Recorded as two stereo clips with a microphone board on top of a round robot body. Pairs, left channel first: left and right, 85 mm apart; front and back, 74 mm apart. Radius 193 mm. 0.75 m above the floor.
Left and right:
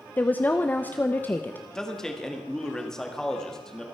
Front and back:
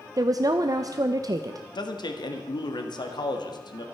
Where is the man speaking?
5° left, 1.9 m.